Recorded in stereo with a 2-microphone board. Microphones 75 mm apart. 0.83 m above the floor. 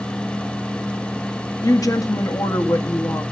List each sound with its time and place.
1.6 s a woman speaking: 55° left (ahead or behind), 1.5 m